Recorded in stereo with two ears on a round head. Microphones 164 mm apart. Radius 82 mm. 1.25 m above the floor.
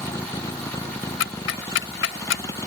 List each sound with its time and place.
0.0 s a vehicle: 15° left (ahead or behind)
1.2 s ticking: 65° left (ahead or behind)